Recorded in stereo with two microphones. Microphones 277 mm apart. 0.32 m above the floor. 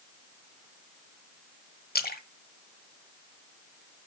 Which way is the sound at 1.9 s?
35° left (ahead or behind).